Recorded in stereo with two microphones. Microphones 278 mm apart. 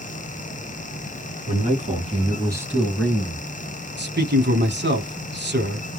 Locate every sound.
1.5 s a man speaking: 30° right (ahead or behind), 1.8 m; by 3.5 s 15° left (ahead or behind), 1.1 m
4.0 s a man speaking: 40° right (ahead or behind), 1.2 m